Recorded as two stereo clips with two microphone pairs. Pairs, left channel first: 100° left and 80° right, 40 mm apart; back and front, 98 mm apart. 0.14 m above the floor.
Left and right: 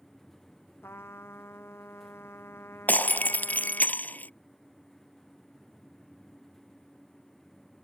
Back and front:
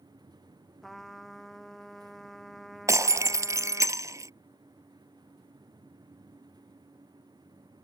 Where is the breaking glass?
55° left.